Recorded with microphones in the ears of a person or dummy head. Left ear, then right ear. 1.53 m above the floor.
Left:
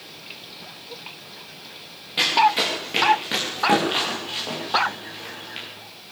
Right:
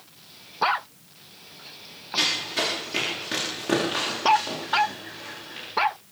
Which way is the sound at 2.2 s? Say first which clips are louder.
Left 7 dB; 20° left (ahead or behind).